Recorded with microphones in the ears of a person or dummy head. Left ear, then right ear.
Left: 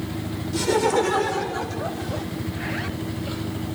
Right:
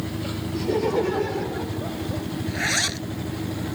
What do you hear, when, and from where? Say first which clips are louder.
0.5 s laughter: left 3 dB; 55° left (ahead or behind); by 2.2 s 35° left (ahead or behind)
2.5 s a zipper: right 10 dB; 80° right